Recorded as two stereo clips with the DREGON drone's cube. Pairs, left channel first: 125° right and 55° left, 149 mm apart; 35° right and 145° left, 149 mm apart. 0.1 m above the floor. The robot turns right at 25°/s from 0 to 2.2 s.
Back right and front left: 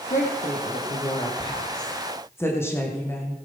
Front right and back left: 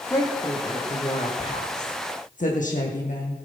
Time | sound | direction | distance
0.1 | a woman speaking | 105° right | 3 m